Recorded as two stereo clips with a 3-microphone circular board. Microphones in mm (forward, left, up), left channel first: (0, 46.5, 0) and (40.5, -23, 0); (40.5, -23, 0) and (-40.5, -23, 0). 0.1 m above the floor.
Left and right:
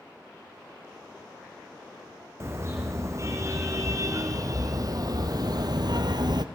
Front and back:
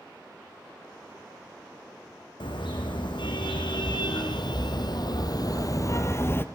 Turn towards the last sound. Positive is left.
turn(degrees=-60)